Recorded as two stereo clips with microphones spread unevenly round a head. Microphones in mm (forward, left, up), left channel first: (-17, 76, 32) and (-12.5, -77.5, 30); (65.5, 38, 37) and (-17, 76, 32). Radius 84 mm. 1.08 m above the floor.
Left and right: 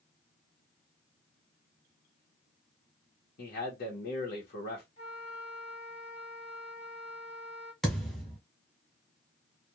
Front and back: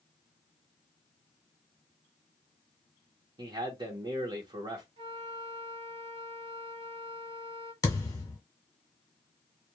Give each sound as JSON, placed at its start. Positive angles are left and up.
{"t": 3.4, "sound": "a man speaking", "azimuth_deg": 115, "distance_m": 1.0}
{"t": 5.0, "sound": "a flute", "azimuth_deg": 140, "distance_m": 1.0}
{"t": 7.8, "sound": "a thud", "azimuth_deg": 5, "distance_m": 1.2}